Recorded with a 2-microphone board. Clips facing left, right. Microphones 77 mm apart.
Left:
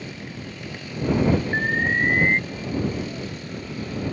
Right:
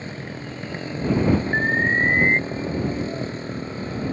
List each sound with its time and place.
0.0 s a motorcycle: 35° right (ahead or behind)
1.5 s an alarm: 15° right (ahead or behind)